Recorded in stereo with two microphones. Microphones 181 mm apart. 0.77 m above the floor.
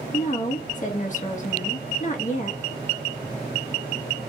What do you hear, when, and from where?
0.1 s a woman speaking: 45° left (ahead or behind), 1.3 m